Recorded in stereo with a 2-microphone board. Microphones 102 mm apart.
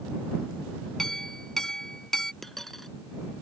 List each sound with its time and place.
1.0 s a clink: 5° left (ahead or behind)
2.4 s a dropped coin: 5° left (ahead or behind)